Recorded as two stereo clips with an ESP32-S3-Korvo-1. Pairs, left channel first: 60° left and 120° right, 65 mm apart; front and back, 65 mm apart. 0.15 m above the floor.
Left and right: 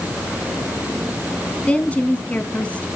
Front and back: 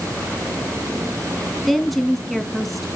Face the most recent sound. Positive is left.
turn(degrees=85)